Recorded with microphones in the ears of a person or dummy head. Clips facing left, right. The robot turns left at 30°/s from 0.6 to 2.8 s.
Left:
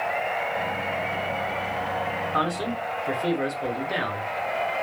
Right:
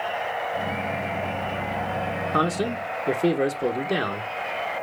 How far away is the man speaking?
About 0.9 m.